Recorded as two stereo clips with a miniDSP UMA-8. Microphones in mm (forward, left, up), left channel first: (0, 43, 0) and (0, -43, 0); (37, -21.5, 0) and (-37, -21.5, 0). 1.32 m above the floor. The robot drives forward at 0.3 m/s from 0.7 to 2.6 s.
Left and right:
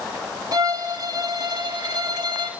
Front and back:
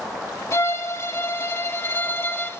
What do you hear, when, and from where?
0.5 s a violin: 50° right, 2 m; by 2.5 s 65° right, 2.0 m